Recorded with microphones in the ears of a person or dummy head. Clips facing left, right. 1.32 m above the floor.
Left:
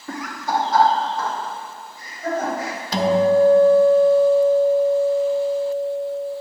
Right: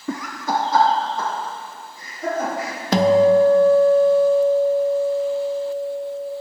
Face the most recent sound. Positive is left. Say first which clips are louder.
# right 3 dB
turn(degrees=-40)  # may be behind; listen again after turning